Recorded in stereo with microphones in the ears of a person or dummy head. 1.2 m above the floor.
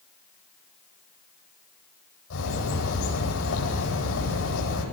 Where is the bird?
85° left, 9.5 m.